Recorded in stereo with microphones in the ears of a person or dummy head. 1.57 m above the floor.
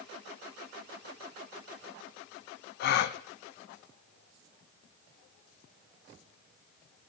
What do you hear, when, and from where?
2.8 s a gasp: 60° left (ahead or behind), 0.5 m